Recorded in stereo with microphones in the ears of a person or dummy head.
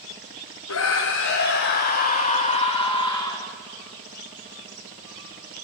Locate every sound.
0.7 s a scream: 75° left (ahead or behind), 1.0 m; by 3.5 s 20° left (ahead or behind), 1.6 m